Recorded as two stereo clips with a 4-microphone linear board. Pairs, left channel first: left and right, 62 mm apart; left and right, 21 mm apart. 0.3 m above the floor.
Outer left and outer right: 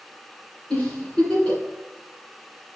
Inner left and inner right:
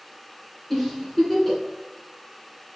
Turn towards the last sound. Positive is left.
turn(degrees=20)  # may be behind; listen again after turning